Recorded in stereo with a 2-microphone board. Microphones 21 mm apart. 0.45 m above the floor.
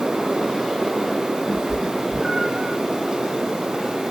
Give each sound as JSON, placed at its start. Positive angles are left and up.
{"t": 1.5, "sound": "a cat meowing", "side_deg": -25, "distance_m": 1.4}